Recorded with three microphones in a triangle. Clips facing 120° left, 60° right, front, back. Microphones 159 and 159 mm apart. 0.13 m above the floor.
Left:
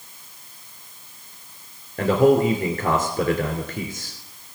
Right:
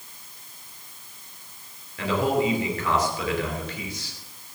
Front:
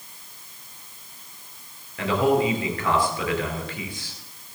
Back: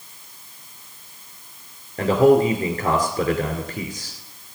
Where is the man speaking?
145° left, 2.5 m.